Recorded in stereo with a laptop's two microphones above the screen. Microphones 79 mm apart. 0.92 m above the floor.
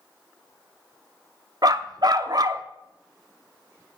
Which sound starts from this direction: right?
A dog barking, at 1.6 s.